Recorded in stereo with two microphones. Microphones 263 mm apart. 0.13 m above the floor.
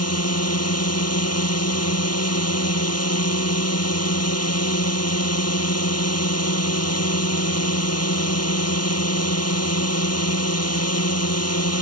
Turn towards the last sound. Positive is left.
turn(degrees=65)  # may be behind; listen again after turning